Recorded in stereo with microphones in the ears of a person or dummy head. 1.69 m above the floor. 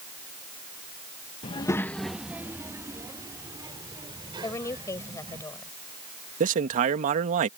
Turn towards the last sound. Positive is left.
turn(degrees=-40)  # may be behind; listen again after turning